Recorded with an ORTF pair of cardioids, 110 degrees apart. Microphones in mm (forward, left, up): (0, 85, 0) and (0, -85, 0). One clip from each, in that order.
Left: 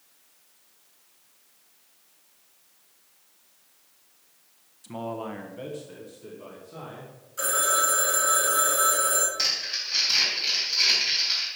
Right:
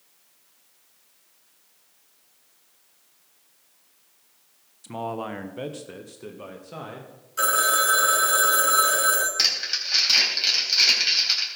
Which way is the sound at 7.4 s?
50° right.